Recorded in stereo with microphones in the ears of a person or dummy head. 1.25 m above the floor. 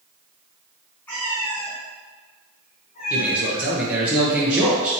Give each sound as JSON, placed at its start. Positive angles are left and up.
{"t": 1.1, "sound": "a cat meowing", "side_deg": 5, "distance_m": 1.8}
{"t": 3.1, "sound": "a man speaking", "side_deg": -5, "distance_m": 0.9}